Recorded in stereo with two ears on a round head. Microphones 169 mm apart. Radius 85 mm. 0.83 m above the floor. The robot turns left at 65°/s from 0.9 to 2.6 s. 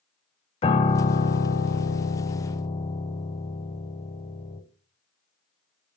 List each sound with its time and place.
0.6 s a piano: 140° left, 1.1 m; by 4.6 s 30° left, 1.1 m